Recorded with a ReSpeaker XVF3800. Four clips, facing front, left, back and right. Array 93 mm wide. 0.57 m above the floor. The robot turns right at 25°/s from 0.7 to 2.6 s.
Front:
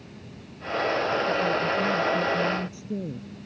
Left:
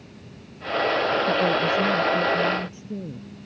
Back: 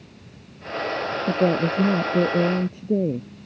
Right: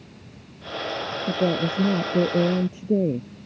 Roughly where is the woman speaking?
Behind.